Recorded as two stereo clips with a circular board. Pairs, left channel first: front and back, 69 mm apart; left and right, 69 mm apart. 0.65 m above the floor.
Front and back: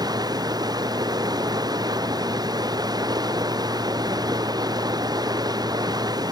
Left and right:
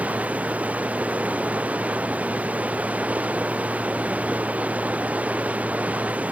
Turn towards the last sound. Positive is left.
turn(degrees=-160)